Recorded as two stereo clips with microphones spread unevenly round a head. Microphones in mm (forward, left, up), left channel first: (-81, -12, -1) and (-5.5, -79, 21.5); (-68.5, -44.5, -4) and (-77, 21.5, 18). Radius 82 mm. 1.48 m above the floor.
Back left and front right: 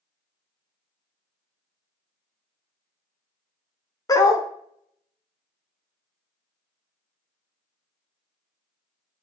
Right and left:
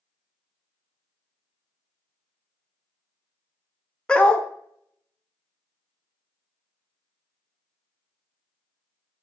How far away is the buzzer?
I don't hear a buzzer.